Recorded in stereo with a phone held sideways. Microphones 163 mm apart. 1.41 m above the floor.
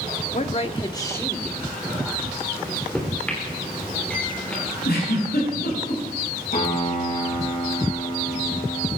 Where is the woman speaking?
50° left (ahead or behind), 0.9 m; by 2.5 s 5° right (ahead or behind), 2 m.